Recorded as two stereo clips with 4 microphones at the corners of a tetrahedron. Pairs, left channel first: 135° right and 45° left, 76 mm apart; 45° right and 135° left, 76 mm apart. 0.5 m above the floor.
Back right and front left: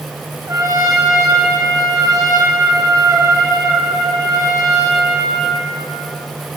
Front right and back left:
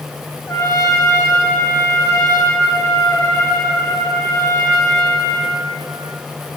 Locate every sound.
0.5 s a trumpet: 5° left, 3 m